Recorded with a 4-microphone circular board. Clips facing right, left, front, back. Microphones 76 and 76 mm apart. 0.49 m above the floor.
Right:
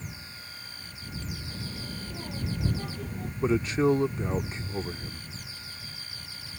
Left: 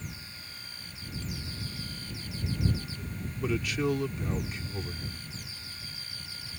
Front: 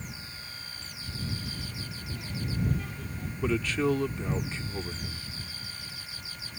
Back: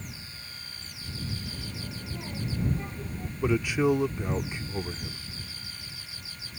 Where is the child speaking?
120° right; by 3.3 s 115° right.